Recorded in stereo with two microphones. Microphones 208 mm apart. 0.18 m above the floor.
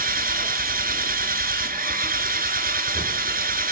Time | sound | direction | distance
0.0 | an engine running | 45° right (ahead or behind) | 1.2 m